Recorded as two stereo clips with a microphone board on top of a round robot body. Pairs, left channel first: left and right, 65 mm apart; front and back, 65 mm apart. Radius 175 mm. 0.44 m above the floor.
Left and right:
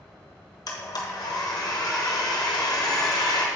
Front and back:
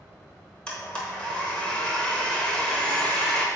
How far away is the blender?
About 1.1 m.